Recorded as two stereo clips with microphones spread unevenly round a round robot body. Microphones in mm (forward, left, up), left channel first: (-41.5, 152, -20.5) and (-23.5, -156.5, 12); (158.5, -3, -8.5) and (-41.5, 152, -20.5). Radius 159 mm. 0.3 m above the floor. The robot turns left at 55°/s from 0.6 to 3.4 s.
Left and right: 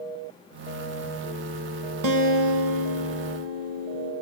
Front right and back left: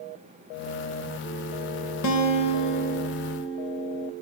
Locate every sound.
2.0 s a guitar: 55° right, 0.5 m; by 4.1 s 130° right, 0.5 m